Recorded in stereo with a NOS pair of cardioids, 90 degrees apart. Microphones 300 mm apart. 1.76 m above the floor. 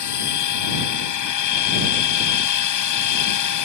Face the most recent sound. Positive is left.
turn(degrees=70)